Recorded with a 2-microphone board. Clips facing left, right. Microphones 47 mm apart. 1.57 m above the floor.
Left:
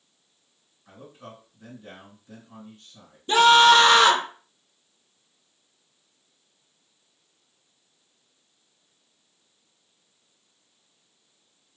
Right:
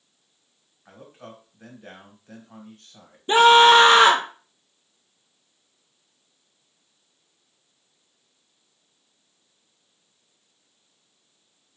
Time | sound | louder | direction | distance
0.8 | a man speaking | right 1 dB | 55° right (ahead or behind) | 1.7 m
3.3 | a scream | right 2 dB | 25° right (ahead or behind) | 0.6 m